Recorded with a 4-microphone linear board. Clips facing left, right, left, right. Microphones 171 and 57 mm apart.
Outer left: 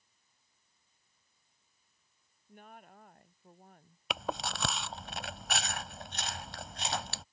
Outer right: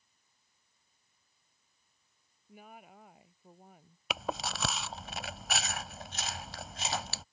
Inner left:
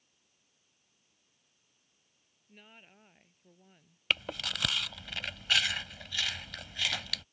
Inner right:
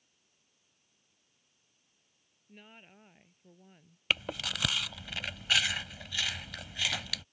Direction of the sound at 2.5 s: 5° right (ahead or behind).